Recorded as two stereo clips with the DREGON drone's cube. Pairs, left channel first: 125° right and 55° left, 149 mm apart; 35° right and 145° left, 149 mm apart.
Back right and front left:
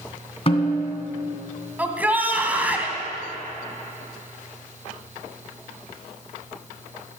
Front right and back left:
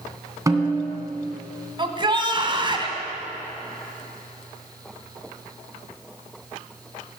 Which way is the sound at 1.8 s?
125° left.